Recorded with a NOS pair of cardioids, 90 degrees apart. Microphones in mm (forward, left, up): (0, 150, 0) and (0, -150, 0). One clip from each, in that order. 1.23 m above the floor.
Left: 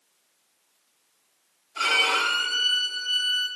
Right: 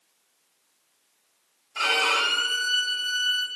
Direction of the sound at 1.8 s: 30° right.